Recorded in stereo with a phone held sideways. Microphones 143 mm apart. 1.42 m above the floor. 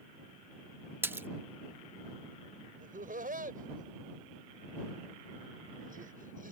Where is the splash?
15° right (ahead or behind).